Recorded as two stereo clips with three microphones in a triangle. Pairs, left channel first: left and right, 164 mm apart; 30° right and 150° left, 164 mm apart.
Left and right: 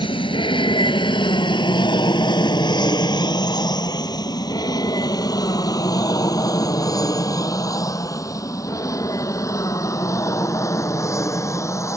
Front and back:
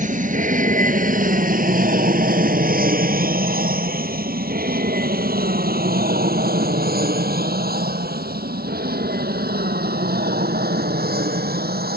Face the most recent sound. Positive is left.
turn(degrees=160)